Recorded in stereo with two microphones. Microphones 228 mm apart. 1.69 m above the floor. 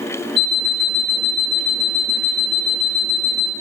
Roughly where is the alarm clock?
Right.